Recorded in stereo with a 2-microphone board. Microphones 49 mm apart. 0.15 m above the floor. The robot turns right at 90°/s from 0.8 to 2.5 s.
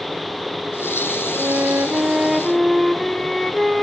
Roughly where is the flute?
Right.